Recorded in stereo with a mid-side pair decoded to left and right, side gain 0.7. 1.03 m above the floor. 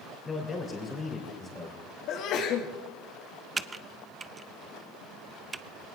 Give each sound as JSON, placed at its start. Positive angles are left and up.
{"t": 0.2, "sound": "a man speaking", "azimuth_deg": 25, "distance_m": 3.0}
{"t": 2.1, "sound": "a sneeze", "azimuth_deg": 60, "distance_m": 1.9}
{"t": 3.6, "sound": "typing on a keyboard", "azimuth_deg": -20, "distance_m": 0.6}